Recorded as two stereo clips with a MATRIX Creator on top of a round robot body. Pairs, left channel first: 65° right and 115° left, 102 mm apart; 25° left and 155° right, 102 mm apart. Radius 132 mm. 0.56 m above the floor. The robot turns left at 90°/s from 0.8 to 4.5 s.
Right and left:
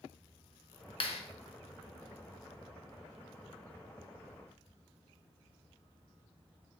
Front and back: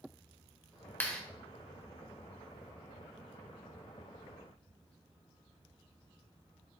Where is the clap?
45° right, 1.0 m; by 1.2 s 65° right, 1.0 m.